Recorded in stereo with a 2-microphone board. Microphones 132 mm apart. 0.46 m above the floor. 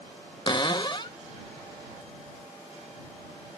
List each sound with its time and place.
0.5 s a cupboard door: 40° left (ahead or behind)